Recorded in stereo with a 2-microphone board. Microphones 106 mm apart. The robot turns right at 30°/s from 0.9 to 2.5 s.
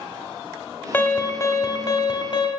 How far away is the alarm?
About 1.1 m.